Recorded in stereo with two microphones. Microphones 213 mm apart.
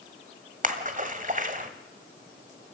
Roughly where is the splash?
Right.